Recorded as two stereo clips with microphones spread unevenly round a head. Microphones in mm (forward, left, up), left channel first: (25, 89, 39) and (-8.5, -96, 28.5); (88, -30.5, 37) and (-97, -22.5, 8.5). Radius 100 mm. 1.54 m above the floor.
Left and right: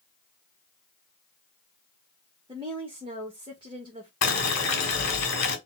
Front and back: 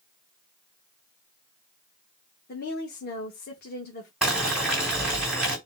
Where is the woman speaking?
35° right, 1.4 m.